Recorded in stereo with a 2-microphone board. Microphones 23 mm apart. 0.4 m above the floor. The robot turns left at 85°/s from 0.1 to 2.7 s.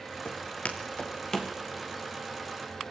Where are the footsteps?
65° left (ahead or behind), 4 m; by 1.5 s 5° left (ahead or behind), 3.5 m.